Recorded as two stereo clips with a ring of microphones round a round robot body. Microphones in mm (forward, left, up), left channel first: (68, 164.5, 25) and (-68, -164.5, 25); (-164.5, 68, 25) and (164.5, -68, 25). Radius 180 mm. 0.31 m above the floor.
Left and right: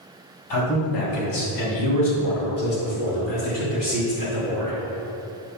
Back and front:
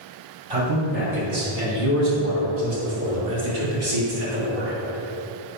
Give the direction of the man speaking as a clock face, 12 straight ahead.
11 o'clock.